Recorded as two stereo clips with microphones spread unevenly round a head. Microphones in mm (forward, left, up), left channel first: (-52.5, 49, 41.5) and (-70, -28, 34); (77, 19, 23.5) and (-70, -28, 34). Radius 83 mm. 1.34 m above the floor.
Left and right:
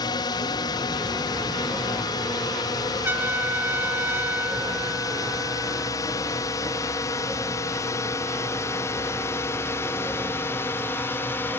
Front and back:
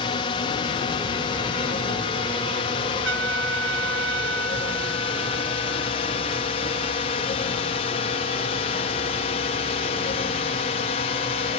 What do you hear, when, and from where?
0.0 s a drone: 65° left; by 11.6 s 20° left
3.0 s a trumpet: 170° right